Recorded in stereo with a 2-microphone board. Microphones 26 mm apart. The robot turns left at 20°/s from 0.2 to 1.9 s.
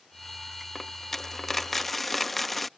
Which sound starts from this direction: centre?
A dropped coin, at 0.8 s.